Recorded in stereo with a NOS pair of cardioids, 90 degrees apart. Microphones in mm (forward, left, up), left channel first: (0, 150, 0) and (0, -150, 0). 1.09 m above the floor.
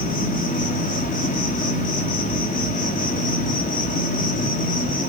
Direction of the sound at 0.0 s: 30° left.